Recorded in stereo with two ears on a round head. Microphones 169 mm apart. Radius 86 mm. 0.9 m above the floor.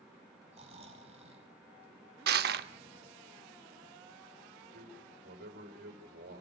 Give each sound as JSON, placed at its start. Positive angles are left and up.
{"t": 0.5, "sound": "snoring", "side_deg": -35, "distance_m": 4.5}
{"t": 2.3, "sound": "crushing", "side_deg": -55, "distance_m": 0.7}
{"t": 4.7, "sound": "a man speaking", "side_deg": -50, "distance_m": 4.5}